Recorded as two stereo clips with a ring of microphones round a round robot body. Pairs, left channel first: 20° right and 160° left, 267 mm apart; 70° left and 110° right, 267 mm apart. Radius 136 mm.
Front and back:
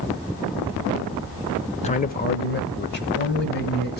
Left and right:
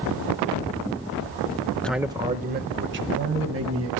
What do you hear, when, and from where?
1.8 s a man speaking: 10° right, 0.8 m; by 4.0 s 75° right, 2.5 m